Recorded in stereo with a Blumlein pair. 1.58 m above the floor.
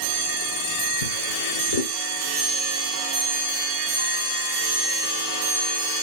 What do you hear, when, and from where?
1.0 s a drawer: 65° left, 3.5 m